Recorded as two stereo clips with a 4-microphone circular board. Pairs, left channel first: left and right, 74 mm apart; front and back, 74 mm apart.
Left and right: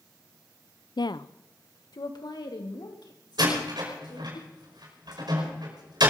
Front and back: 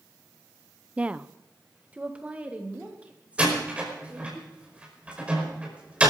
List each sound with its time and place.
1.0 s a woman speaking: 105° left, 0.5 m; by 4.4 s 110° left, 5 m
3.4 s a door slam: 105° right, 5 m